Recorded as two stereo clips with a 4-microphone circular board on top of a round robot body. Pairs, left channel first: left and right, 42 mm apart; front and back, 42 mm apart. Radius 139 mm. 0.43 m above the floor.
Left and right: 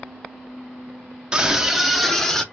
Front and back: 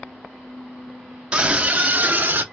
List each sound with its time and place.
1.3 s a scream: 135° right, 0.8 m; by 2.4 s 160° left, 1.0 m